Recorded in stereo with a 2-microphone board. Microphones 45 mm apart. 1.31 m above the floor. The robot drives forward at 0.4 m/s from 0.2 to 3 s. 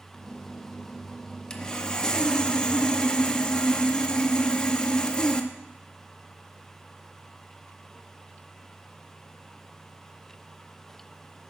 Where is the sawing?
15° left (ahead or behind), 0.8 m.